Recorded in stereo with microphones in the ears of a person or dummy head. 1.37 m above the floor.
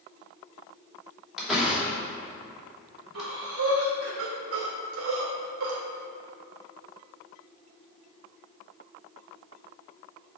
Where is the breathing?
65° right (ahead or behind), 1.9 m.